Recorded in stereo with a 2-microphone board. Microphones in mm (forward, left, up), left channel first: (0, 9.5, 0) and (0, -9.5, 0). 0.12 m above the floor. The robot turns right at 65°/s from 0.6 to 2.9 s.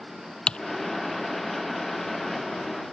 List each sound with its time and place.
0.5 s typing on a keyboard: 60° left (ahead or behind)